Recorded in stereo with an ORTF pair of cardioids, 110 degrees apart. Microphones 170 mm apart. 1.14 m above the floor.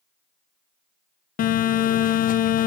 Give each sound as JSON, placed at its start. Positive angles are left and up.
{"t": 1.4, "sound": "a phone buzzing", "azimuth_deg": 55, "distance_m": 0.7}